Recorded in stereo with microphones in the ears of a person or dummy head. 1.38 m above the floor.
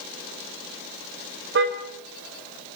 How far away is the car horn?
About 4 m.